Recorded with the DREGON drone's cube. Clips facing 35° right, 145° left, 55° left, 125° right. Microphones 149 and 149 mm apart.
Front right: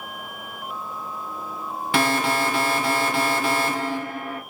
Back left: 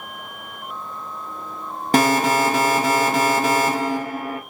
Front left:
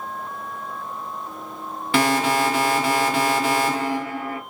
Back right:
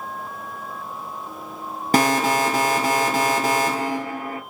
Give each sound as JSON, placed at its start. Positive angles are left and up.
{"t": 1.9, "sound": "an alarm", "azimuth_deg": -170, "distance_m": 0.9}